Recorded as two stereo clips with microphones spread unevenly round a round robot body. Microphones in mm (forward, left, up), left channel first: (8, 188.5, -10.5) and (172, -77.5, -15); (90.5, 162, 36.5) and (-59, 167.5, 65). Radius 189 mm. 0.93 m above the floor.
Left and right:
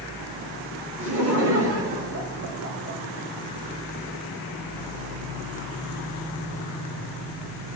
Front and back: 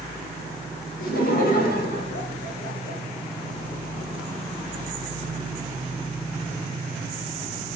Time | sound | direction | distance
1.0 | laughter | 20° right | 5.5 m